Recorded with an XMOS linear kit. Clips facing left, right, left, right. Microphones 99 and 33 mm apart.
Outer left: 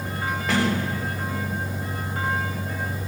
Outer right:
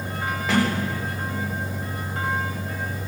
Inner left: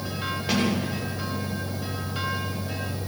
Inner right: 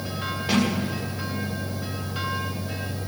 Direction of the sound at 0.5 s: Centre (ahead or behind).